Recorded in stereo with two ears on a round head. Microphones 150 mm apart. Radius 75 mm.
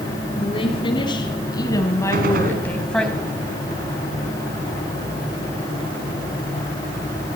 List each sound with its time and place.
0.4 s a woman speaking: 35° left (ahead or behind), 4 m; by 3.1 s centre (ahead or behind), 2.5 m
2.1 s a gunshot: 55° right (ahead or behind), 3 m